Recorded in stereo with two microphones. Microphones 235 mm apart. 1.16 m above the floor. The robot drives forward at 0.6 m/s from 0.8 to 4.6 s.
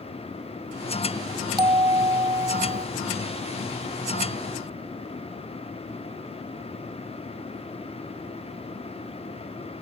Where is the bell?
20° right (ahead or behind); by 2.9 s 30° right (ahead or behind).